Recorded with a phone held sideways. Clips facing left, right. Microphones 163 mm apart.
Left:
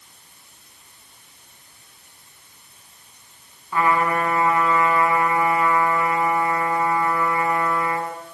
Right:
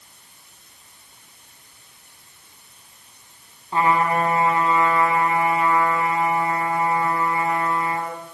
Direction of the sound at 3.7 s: 25° right (ahead or behind).